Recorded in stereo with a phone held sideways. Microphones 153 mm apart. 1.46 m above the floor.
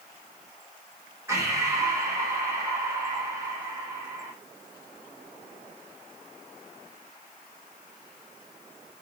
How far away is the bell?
I don't hear a bell.